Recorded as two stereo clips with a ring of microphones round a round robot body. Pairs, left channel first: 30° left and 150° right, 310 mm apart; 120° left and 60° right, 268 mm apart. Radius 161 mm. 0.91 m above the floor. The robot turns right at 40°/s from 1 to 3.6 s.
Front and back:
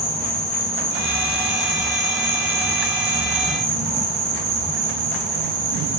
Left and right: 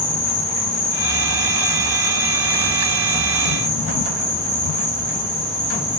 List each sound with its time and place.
0.0 s an insect: 95° left, 1.0 m; by 6.0 s 165° right, 1.0 m